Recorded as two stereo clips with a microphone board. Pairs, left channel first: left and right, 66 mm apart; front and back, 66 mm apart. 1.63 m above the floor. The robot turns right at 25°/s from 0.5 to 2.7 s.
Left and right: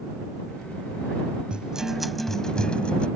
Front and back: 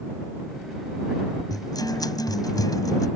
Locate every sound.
1.5 s a guitar: 15° right; by 3.1 s 15° left